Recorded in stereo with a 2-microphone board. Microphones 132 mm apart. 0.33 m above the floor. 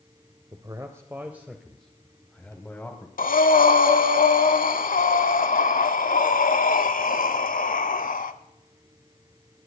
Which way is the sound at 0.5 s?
30° right (ahead or behind).